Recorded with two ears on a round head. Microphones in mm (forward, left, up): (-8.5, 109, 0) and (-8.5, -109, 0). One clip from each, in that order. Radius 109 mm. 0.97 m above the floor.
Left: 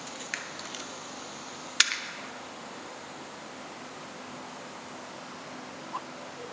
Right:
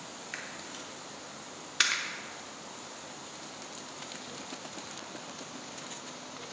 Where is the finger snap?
10° left (ahead or behind), 0.6 m.